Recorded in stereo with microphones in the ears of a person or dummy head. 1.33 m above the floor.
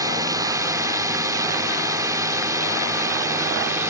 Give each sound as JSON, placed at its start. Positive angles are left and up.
{"t": 0.0, "sound": "a drone", "side_deg": -20}